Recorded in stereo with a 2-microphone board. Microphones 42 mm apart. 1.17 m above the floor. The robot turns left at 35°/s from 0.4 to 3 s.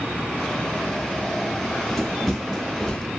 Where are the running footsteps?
10° left (ahead or behind), 1.5 m; by 3.1 s 20° left (ahead or behind), 1.4 m.